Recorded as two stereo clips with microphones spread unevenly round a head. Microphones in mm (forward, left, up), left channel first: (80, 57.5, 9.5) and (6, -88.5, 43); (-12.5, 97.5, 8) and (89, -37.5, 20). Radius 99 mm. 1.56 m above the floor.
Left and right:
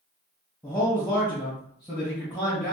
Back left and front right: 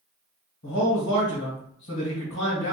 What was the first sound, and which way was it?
A man speaking, 140° left.